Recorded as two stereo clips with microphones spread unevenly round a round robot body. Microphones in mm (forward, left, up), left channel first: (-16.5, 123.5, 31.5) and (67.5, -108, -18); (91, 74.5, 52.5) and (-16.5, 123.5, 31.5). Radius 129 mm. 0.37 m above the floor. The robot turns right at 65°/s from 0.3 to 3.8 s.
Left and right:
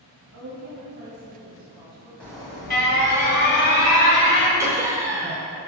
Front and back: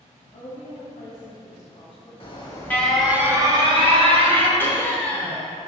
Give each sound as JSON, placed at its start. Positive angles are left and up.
{"t": 0.3, "sound": "a woman speaking", "azimuth_deg": -80, "distance_m": 2.0}
{"t": 2.2, "sound": "an alarm", "azimuth_deg": 20, "distance_m": 1.6}
{"t": 4.6, "sound": "laughter", "azimuth_deg": -100, "distance_m": 0.9}